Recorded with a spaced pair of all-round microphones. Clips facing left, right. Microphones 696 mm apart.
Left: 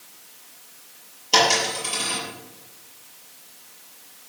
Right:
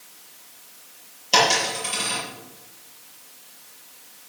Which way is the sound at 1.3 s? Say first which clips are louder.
Left 1 dB; 15° right (ahead or behind).